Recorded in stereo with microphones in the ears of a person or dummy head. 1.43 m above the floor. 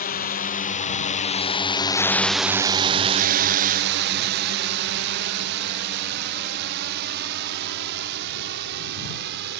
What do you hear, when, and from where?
0.0 s a drone: 40° left (ahead or behind); by 9.6 s 60° right (ahead or behind)